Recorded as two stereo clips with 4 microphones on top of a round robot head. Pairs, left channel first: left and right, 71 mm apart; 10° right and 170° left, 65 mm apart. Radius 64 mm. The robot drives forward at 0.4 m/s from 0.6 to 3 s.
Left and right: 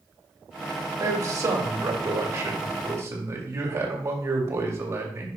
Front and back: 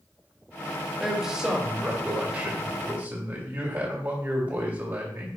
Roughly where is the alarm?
No alarm in this recording.